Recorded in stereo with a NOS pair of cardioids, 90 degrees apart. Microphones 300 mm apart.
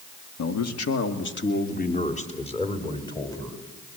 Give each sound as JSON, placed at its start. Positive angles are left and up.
{"t": 0.4, "sound": "a man speaking", "azimuth_deg": 60, "distance_m": 1.9}